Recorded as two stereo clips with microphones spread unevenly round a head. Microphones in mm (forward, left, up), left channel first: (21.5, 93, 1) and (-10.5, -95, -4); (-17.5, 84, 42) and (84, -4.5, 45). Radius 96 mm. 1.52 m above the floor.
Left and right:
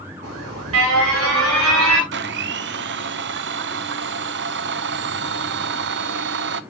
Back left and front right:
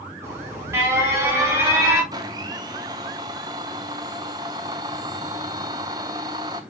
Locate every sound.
0.2 s an alarm: 115° right, 5 m
2.1 s a blender: 110° right, 0.7 m